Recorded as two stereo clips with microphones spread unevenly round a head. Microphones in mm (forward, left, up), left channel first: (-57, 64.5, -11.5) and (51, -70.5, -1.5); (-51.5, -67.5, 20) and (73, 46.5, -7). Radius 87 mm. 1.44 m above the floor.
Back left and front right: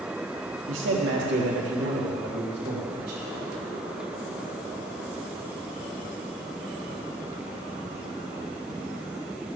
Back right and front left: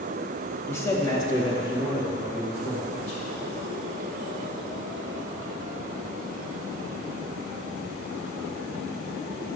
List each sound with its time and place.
0.7 s a man speaking: 60° right, 2.5 m; by 3.2 s 85° right, 4.5 m